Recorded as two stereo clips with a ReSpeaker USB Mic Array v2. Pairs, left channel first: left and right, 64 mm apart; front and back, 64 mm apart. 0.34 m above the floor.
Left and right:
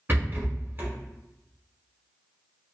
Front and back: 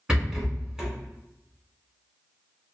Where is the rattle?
110° right, 1.1 m.